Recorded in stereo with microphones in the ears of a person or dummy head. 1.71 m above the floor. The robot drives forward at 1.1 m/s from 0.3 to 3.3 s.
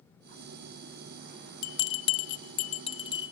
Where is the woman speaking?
I don't hear a woman speaking.